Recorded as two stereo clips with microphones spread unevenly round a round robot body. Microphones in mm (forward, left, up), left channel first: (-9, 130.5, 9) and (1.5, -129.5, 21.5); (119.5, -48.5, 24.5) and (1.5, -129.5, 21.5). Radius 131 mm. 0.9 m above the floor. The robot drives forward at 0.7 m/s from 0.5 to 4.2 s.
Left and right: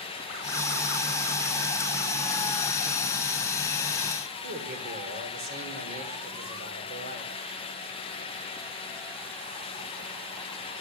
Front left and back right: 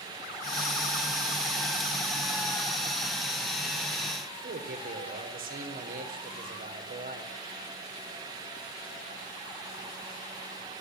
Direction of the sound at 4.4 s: 145° right.